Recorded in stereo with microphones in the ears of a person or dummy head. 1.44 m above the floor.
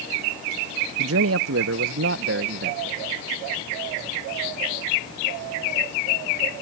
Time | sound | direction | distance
1.0 | a man speaking | 75° right (ahead or behind) | ?